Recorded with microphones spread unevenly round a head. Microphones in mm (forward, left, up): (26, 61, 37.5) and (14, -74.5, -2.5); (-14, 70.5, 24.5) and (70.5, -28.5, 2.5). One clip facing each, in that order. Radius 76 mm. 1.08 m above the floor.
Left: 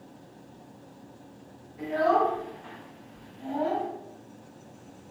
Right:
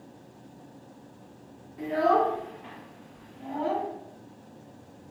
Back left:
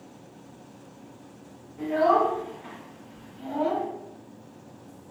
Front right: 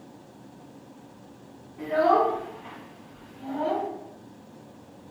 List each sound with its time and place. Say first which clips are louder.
1.8 s a child speaking: even, even; 140° right, 1.1 m; by 3.9 s 160° left, 1.1 m